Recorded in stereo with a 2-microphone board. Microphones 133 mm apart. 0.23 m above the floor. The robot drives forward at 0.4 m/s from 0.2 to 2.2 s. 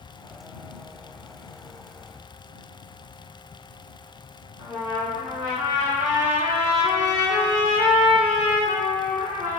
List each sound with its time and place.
4.6 s a trumpet: 10° right (ahead or behind), 1.9 m